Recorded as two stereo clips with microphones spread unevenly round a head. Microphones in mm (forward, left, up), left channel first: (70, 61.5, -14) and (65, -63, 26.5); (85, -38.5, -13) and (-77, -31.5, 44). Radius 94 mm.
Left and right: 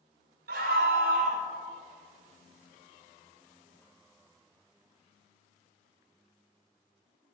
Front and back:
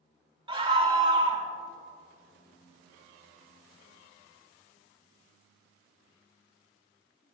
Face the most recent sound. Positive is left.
turn(degrees=-120)